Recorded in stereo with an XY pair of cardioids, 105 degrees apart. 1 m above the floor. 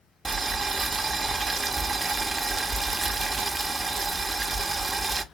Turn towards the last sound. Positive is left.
turn(degrees=-15)